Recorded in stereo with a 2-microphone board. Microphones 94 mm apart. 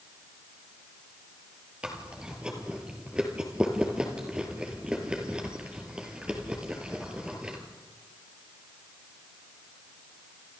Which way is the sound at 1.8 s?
10° right (ahead or behind).